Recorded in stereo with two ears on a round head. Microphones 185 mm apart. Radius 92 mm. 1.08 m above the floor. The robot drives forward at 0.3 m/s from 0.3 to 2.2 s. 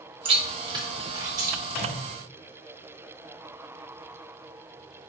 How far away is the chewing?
About 0.8 m.